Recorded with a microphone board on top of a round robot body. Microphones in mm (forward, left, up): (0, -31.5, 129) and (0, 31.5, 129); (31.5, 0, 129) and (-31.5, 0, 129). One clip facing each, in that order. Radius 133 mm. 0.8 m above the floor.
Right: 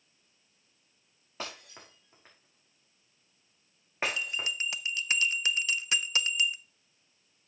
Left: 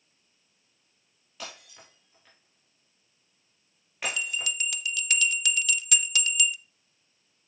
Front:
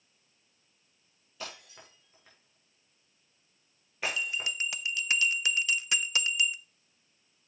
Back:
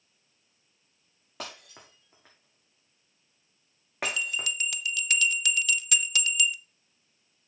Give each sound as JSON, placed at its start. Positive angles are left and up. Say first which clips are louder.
{"t": 1.4, "sound": "breaking glass", "louder": "right 2 dB, back 2 dB", "azimuth_deg": -150, "distance_m": 5.0}
{"t": 4.0, "sound": "a bell", "louder": "left 3 dB, back 1 dB", "azimuth_deg": -45, "distance_m": 0.8}